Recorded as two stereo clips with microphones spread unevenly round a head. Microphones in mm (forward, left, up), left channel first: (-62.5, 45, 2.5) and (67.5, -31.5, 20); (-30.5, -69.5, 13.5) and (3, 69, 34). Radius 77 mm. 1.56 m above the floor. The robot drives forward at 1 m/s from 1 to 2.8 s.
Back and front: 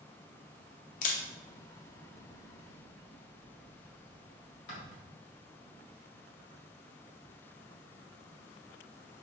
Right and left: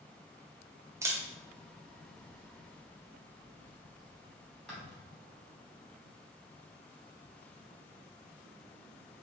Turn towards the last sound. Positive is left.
turn(degrees=170)